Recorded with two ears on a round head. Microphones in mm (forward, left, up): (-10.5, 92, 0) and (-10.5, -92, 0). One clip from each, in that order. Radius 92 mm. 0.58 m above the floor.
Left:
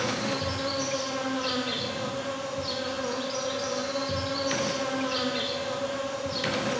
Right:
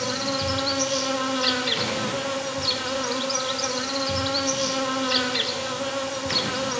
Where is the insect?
50° right (ahead or behind), 0.9 m.